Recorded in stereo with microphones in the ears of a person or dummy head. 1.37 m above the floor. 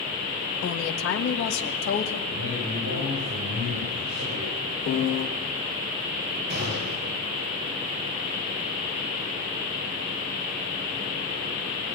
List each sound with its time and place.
0.6 s a woman speaking: 65° left (ahead or behind), 1.6 m; by 2.2 s 60° left (ahead or behind), 3 m
2.3 s a man speaking: 70° right (ahead or behind), 9 m
4.9 s a piano: 55° left (ahead or behind), 1.5 m
6.5 s a gunshot: 45° right (ahead or behind), 7 m